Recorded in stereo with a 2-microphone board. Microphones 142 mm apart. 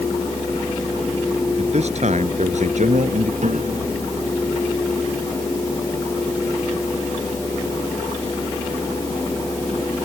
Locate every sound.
1.6 s a man speaking: 50° right (ahead or behind); by 3.3 s 60° right (ahead or behind)
3.4 s a piano: 60° right (ahead or behind)